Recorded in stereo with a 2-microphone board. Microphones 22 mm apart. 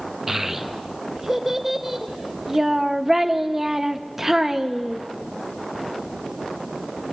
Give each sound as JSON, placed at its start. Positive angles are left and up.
{"t": 0.3, "sound": "a child speaking", "side_deg": -10, "distance_m": 1.0}